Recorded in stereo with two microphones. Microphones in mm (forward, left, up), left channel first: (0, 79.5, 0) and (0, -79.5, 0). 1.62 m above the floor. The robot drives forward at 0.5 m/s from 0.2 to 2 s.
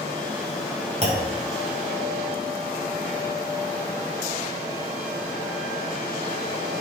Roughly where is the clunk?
Right.